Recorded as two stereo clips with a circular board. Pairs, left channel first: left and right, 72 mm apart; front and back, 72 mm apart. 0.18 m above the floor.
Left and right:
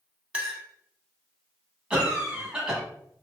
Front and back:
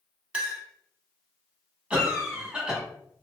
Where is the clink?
130° right, 0.6 m.